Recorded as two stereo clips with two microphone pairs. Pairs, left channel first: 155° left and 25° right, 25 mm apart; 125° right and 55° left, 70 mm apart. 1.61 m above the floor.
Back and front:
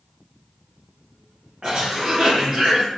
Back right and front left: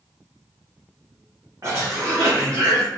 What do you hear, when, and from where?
1.6 s a cough: 30° left, 1.0 m